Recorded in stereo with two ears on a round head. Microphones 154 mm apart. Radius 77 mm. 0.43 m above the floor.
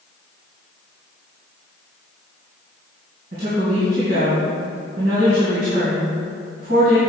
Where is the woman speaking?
65° right (ahead or behind), 2.5 m.